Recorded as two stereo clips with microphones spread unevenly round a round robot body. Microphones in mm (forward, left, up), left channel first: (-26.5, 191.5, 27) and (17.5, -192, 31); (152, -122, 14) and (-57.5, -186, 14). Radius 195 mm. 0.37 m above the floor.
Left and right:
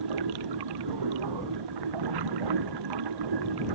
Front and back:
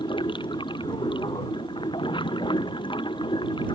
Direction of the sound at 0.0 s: 50° right.